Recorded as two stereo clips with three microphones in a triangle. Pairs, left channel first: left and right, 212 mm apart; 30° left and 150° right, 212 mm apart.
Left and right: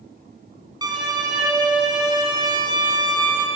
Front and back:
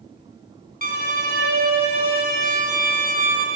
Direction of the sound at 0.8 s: 150° right.